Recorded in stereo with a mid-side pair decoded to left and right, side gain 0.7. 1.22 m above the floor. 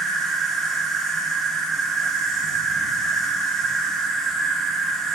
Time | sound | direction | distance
0.0 | an insect | 20° right | 3 m